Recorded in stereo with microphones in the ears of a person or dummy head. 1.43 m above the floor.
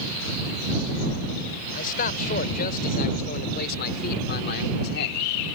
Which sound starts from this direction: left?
A man speaking, at 1.7 s.